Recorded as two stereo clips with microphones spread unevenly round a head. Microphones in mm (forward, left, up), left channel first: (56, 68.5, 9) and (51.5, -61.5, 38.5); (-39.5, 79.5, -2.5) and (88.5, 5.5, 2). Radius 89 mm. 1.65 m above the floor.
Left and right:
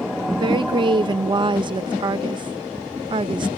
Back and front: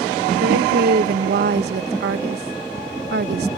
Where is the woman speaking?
45° right.